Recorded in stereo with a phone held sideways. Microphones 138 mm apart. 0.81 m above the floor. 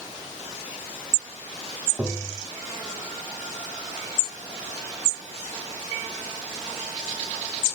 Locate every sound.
2.0 s tapping: 15° right (ahead or behind), 1.5 m